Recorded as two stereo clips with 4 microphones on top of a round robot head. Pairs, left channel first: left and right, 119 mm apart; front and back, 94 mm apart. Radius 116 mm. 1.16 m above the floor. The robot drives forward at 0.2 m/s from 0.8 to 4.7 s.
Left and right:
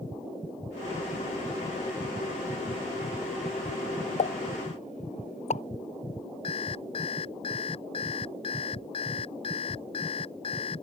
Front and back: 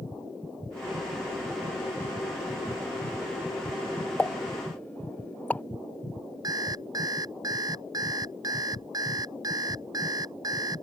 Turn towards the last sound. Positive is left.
turn(degrees=140)